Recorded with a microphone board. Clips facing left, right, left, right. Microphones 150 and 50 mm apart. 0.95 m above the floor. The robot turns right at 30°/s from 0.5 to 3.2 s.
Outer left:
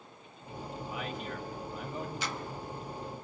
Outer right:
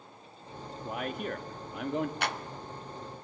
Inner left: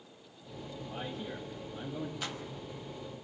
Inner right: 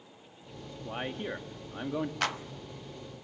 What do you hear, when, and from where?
0.8 s a man speaking: 130° right, 1.7 m; by 2.1 s 90° right, 1.7 m
2.2 s a clap: 65° right (ahead or behind), 0.8 m